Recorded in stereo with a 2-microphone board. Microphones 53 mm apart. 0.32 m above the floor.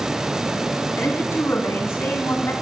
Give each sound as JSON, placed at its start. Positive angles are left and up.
{"t": 1.0, "sound": "a woman speaking", "side_deg": 60, "distance_m": 3.5}